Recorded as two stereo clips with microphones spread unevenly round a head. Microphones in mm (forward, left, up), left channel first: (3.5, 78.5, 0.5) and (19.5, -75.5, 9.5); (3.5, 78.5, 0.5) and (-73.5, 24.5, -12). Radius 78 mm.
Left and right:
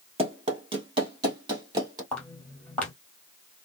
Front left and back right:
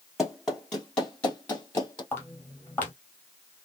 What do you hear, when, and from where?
0.2 s running footsteps: 50° right, 1.8 m; by 2.0 s 25° right, 2.5 m
2.1 s footsteps: 15° left, 1.5 m